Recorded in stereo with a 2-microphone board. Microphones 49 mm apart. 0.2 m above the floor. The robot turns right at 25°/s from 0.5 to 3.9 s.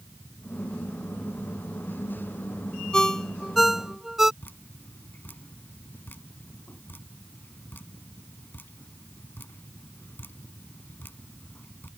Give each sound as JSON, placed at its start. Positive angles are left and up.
{"t": 2.9, "sound": "a ringtone", "side_deg": 15}
{"t": 4.4, "sound": "dripping", "side_deg": 45}